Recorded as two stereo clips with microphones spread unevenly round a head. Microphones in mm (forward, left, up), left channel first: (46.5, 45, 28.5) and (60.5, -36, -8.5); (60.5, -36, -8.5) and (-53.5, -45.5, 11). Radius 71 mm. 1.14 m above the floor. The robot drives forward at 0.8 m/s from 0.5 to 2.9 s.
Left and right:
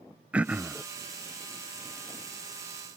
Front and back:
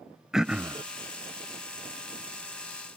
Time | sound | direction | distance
0.3 | throat clearing | 80° right | ?